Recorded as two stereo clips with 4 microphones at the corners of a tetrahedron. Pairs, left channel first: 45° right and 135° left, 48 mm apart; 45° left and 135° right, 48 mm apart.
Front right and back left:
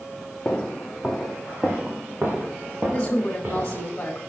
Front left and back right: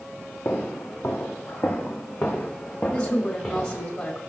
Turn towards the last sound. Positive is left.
turn(degrees=15)